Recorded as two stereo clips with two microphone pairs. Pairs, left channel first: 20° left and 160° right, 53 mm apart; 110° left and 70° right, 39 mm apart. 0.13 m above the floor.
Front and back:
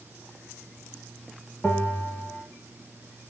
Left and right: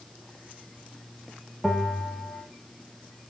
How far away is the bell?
About 1.1 m.